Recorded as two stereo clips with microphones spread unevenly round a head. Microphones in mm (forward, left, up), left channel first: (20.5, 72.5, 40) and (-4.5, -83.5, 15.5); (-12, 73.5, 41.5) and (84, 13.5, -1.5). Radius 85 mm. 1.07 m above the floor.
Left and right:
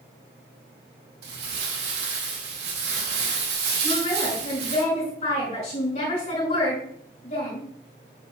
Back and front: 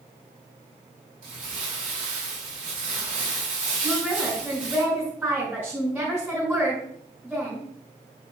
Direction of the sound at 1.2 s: 90° right.